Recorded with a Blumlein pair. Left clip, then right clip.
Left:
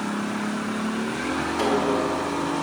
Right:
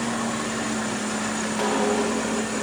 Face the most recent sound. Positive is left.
turn(degrees=0)